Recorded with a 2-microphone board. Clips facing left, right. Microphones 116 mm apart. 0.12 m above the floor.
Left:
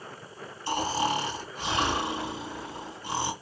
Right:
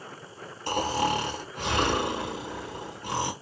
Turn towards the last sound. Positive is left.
turn(degrees=-60)  # may be behind; listen again after turning